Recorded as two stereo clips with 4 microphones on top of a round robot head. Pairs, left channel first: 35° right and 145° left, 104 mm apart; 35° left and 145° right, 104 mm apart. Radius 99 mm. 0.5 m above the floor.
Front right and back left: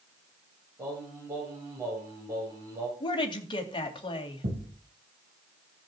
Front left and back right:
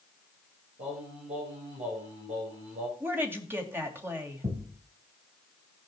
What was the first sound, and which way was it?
Singing, 155° right.